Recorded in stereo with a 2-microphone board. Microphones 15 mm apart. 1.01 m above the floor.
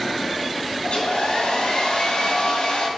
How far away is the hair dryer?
About 4.5 m.